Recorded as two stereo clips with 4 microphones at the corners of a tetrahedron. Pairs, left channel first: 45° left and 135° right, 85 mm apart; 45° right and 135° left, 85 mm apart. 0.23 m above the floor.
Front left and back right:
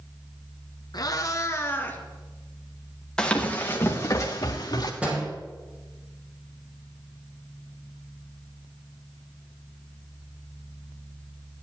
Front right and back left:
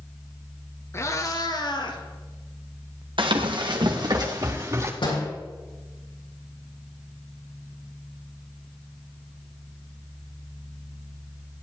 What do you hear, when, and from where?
0.9 s a cat meowing: 10° left, 1.4 m; by 2.0 s 25° right, 1.9 m
3.2 s running footsteps: 125° left, 2.5 m; by 4.9 s 80° left, 3.5 m
5.0 s a door slam: 60° right, 5 m